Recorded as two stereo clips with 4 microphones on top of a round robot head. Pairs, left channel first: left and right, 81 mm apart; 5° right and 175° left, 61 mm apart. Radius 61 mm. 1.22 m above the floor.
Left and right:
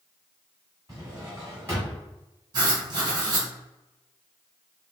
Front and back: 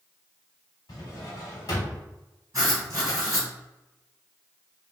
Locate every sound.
0.9 s a drawer: 25° right, 1.2 m
2.5 s writing: 125° right, 1.9 m